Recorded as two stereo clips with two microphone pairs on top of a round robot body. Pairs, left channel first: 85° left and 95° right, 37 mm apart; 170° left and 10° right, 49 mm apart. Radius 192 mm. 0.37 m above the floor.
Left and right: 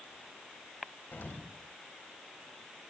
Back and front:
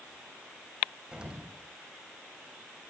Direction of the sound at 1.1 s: 60° left.